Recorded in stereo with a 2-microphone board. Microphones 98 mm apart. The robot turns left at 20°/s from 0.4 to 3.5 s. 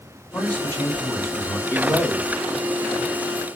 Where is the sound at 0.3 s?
15° left (ahead or behind), 2.5 m; by 1.6 s 40° left (ahead or behind), 2.5 m.